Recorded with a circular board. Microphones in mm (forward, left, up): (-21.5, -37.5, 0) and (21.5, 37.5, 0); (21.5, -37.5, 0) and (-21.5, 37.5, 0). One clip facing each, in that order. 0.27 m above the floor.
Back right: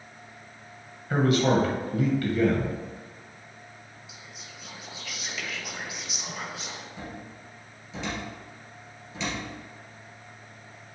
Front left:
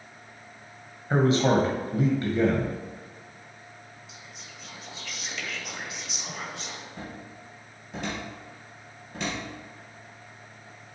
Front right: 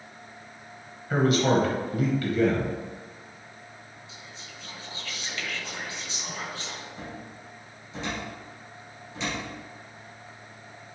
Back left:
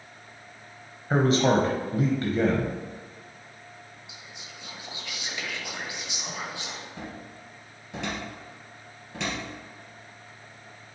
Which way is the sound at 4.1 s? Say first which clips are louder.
Even, front right 1 dB; 160° left.